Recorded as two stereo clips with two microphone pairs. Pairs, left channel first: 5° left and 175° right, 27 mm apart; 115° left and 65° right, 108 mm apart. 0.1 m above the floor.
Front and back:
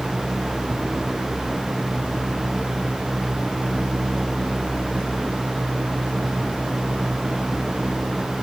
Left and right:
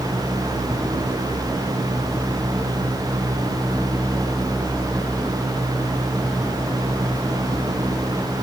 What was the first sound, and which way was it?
Only background noise.